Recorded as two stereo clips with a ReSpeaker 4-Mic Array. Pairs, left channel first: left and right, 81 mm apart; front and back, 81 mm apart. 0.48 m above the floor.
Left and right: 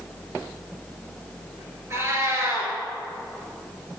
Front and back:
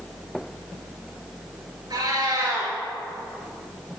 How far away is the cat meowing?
About 2 m.